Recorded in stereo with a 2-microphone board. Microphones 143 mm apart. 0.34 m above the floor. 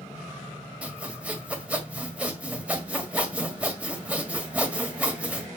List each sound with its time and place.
0.8 s sawing: 10° right (ahead or behind), 1.7 m